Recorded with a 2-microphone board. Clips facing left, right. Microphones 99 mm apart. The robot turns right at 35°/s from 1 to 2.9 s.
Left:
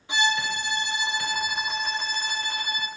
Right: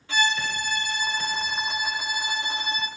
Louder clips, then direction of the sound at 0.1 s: Even; 155° left.